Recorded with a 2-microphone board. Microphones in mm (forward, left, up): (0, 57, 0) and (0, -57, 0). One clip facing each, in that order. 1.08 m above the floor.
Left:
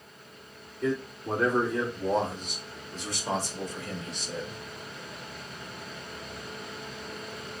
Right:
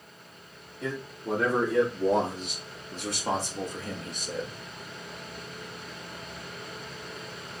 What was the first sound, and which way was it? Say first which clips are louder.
A man speaking: left 4 dB; 80° right.